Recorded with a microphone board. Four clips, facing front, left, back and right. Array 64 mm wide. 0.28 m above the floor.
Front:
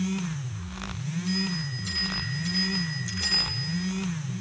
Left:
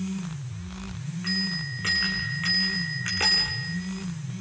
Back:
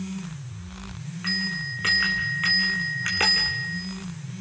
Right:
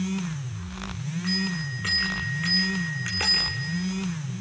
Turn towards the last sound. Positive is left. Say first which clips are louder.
# right 1 dB, back 3 dB
turn(degrees=180)